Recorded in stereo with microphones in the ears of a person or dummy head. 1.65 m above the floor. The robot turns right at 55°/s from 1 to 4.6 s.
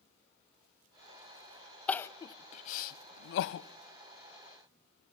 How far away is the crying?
About 0.7 m.